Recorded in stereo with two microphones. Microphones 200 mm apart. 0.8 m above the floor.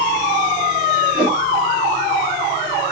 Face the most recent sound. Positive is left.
turn(degrees=-50)  # may be behind; listen again after turning